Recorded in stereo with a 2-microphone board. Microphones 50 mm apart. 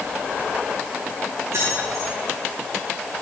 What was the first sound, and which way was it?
Keys jangling, 70° right (ahead or behind).